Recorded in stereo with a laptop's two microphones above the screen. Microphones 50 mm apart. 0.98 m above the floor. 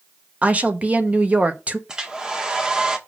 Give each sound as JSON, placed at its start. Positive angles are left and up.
{"t": 0.4, "sound": "a woman speaking", "side_deg": -25, "distance_m": 0.8}
{"t": 1.9, "sound": "a hair dryer", "side_deg": -15, "distance_m": 1.4}